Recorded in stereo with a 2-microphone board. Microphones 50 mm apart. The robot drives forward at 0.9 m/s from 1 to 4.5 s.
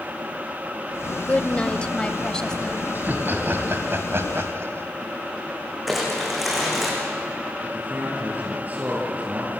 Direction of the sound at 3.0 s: 40° right (ahead or behind).